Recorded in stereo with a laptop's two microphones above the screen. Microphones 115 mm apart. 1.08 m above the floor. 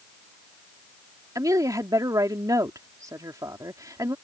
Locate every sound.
1.4 s a woman speaking: 35° right (ahead or behind)